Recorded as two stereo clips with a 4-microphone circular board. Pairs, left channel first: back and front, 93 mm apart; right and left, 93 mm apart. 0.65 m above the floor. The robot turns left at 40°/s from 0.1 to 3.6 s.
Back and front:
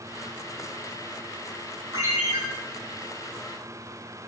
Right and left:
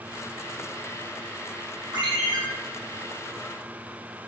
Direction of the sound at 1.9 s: 60° left.